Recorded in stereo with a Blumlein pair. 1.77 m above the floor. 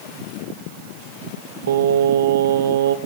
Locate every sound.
1.7 s singing: 60° right, 1.3 m